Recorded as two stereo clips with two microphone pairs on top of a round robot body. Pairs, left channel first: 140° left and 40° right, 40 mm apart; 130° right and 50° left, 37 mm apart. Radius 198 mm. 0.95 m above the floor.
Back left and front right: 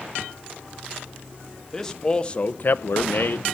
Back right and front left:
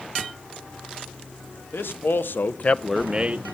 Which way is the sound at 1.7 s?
140° right.